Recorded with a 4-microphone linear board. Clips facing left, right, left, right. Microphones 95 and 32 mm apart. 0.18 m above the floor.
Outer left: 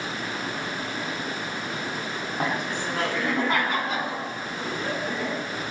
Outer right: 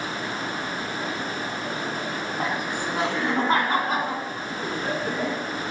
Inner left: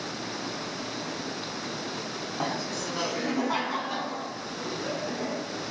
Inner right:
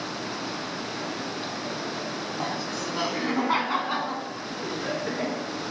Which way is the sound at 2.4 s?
5° left (ahead or behind).